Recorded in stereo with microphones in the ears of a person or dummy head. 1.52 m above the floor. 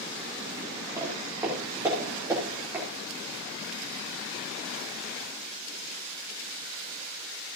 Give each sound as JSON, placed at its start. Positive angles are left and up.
{"t": 1.0, "sound": "footsteps", "side_deg": -15, "distance_m": 3.5}